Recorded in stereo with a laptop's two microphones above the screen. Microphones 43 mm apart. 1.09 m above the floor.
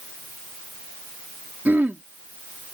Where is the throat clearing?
60° right (ahead or behind).